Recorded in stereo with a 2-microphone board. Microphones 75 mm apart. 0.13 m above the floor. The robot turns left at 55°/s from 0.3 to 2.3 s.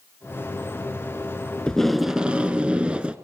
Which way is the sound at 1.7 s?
15° left.